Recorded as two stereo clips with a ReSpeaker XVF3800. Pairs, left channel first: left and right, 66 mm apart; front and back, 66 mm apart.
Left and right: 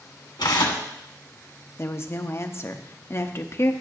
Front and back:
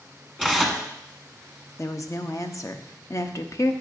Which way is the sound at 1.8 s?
40° left.